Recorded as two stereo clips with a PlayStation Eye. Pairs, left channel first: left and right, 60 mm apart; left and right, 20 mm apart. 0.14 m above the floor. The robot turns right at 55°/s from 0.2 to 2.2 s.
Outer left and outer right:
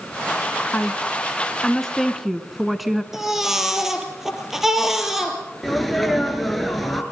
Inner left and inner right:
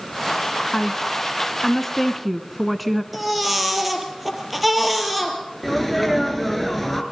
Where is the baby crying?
10° right (ahead or behind), 3 m.